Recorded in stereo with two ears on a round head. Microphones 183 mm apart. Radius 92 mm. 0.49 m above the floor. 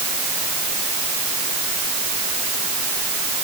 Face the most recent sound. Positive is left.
No sound to turn to.